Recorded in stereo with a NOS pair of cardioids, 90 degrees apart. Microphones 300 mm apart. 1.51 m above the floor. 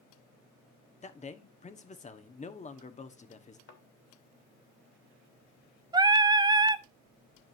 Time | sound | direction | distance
1.0 | a man speaking | 25° left | 1.2 m
3.7 | a thud | 50° left | 2.5 m
5.9 | singing | 15° right | 0.6 m